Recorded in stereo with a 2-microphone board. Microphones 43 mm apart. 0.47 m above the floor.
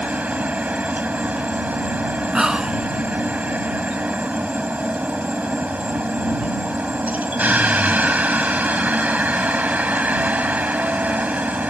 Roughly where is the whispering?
Centre.